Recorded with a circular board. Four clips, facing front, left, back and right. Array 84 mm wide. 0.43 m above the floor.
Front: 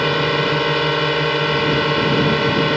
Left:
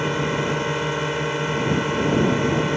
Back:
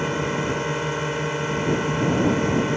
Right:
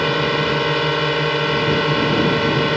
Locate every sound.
0.0 s a drone: 35° right